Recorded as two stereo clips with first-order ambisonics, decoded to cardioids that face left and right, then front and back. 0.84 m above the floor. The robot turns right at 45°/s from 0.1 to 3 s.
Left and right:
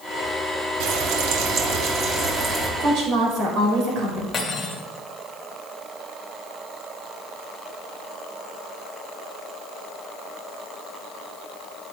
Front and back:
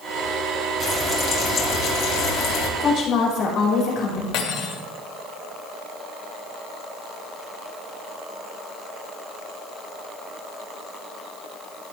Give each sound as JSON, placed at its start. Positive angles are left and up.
{"t": 0.8, "sound": "frying", "azimuth_deg": -95, "distance_m": 1.6}
{"t": 2.8, "sound": "a woman speaking", "azimuth_deg": -55, "distance_m": 4.5}
{"t": 4.3, "sound": "cutlery clinking", "azimuth_deg": 20, "distance_m": 1.7}